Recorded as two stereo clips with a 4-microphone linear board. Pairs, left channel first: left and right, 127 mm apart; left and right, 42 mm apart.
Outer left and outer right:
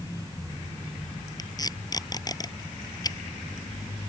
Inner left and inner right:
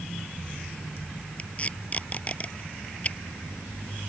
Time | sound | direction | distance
1.4 | tape being pulled | 30° left (ahead or behind) | ?